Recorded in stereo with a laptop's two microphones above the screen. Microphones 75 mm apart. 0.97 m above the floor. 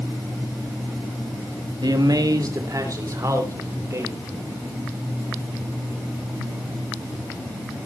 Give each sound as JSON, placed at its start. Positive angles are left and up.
{"t": 1.8, "sound": "a man speaking", "side_deg": -65, "distance_m": 1.8}